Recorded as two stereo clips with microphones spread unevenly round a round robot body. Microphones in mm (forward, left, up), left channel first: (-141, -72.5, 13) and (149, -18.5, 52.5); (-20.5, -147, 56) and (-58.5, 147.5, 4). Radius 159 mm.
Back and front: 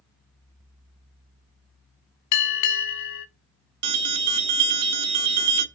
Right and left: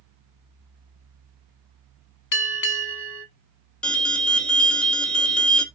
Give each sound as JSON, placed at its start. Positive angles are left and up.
{"t": 2.3, "sound": "a bell", "azimuth_deg": -135, "distance_m": 1.1}
{"t": 3.8, "sound": "an alarm", "azimuth_deg": 10, "distance_m": 1.0}